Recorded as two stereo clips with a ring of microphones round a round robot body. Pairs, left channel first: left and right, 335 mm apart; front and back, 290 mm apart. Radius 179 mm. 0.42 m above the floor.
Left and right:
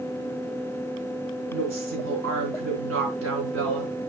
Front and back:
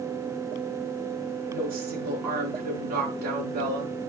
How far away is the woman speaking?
About 4.5 m.